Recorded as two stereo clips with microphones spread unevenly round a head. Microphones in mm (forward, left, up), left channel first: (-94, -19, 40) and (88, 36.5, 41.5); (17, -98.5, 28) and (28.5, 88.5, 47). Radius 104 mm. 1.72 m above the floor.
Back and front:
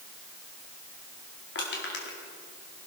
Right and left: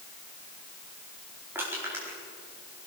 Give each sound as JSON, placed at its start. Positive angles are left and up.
{"t": 1.6, "sound": "crushing", "azimuth_deg": 165, "distance_m": 4.5}